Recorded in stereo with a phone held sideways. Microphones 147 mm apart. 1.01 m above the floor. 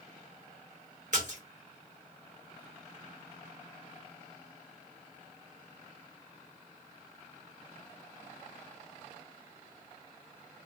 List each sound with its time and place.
1.1 s a splash: 55° right (ahead or behind), 2 m